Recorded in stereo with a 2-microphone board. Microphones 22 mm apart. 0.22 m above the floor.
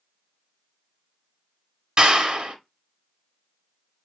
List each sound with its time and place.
2.0 s a clap: 40° right (ahead or behind), 1.1 m